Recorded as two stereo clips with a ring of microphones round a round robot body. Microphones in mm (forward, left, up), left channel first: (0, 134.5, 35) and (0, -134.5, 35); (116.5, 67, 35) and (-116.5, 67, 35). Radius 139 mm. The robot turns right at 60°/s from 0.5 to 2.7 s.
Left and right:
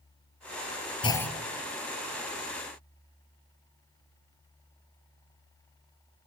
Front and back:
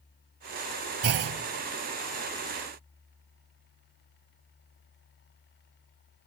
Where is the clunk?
160° left, 1.2 m; by 1.4 s 175° right, 1.2 m.